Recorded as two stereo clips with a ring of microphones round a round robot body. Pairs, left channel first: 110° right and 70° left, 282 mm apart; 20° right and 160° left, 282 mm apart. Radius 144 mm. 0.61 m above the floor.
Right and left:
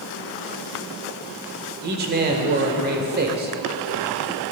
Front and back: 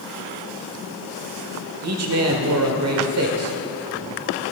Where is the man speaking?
125° left, 1.8 m.